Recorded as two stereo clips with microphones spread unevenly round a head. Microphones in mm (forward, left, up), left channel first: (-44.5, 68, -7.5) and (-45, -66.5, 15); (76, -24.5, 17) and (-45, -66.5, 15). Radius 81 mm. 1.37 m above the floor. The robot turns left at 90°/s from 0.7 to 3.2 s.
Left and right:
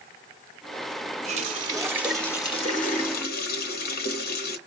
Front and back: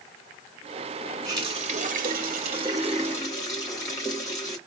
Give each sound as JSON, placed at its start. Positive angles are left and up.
{"t": 1.2, "sound": "a running tap", "azimuth_deg": -95, "distance_m": 1.0}